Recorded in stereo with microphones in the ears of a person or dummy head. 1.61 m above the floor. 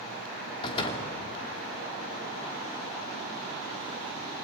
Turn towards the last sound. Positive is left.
turn(degrees=30)  # may be behind; listen again after turning